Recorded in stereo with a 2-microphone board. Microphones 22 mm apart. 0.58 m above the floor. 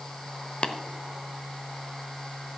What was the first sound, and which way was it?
Tapping, 45° left (ahead or behind).